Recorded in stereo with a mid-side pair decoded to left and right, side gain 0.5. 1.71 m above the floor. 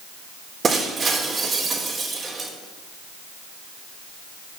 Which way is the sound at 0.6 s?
40° right.